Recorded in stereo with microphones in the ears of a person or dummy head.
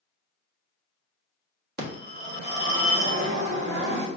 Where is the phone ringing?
60° right (ahead or behind), 1.5 m.